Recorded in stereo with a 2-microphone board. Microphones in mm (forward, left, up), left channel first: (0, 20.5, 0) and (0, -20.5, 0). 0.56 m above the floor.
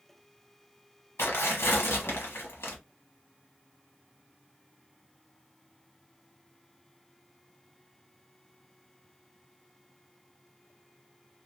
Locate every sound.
1.2 s tearing paper: 80° left, 1.0 m